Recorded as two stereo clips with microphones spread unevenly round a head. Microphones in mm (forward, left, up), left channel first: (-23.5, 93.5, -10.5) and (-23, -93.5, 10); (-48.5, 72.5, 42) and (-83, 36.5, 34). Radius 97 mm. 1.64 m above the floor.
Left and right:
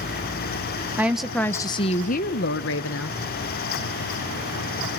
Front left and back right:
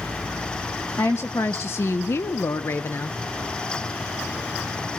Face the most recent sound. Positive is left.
turn(degrees=75)